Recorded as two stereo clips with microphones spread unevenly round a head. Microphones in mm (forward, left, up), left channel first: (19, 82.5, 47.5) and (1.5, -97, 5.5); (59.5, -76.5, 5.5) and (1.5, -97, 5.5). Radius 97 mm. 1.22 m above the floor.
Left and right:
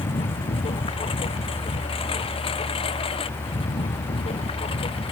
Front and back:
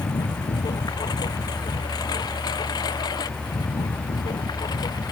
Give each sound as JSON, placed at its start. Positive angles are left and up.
{"t": 0.0, "sound": "a lawn mower", "azimuth_deg": 25}